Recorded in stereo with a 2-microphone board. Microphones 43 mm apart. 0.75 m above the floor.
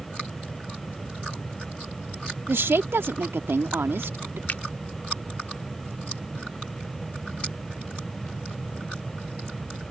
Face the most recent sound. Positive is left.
turn(degrees=45)  # may be behind; listen again after turning